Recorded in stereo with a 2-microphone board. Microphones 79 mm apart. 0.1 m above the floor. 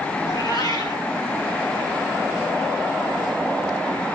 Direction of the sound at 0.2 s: 50° left (ahead or behind).